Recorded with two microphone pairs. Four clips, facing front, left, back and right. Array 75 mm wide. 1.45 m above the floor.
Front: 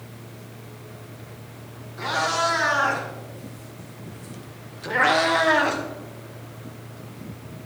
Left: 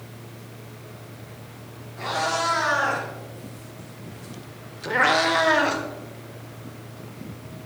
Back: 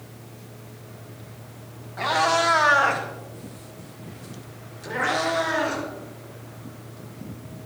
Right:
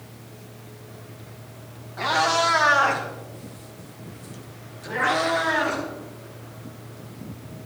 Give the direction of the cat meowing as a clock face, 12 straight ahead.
5 o'clock.